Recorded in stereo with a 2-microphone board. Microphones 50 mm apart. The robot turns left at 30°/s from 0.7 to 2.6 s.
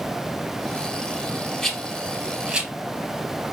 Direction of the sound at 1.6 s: 10° left (ahead or behind).